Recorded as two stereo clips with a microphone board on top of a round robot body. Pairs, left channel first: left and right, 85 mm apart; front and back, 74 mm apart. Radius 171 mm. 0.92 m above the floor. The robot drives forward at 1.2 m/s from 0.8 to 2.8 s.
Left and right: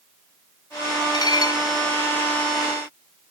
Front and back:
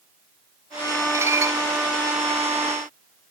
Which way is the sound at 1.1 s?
125° left.